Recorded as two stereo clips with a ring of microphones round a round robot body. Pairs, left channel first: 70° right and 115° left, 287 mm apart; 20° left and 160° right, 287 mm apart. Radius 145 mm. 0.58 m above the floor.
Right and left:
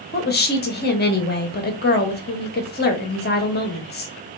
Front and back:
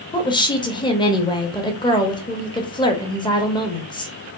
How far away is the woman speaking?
About 1.1 m.